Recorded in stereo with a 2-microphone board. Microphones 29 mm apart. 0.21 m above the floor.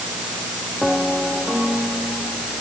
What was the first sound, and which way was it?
Only background noise.